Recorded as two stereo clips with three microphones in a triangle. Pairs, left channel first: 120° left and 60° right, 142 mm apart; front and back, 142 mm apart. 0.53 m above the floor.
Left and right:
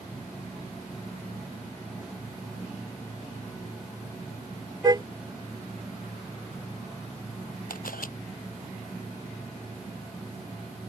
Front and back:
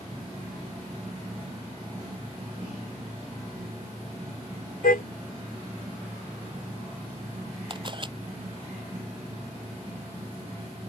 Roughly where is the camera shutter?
Behind left.